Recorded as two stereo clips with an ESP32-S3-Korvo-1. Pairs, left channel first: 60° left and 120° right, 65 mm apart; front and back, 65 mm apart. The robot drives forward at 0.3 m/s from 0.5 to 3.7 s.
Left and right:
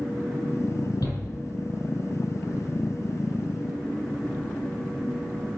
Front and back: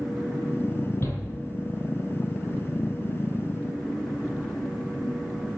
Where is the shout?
50° left, 7 m.